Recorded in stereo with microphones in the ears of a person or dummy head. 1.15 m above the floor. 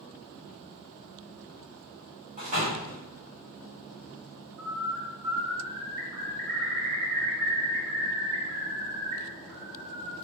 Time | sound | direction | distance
2.4 | a door slam | 35° right (ahead or behind) | 2.0 m
4.6 | a bird | 40° right (ahead or behind) | 1.5 m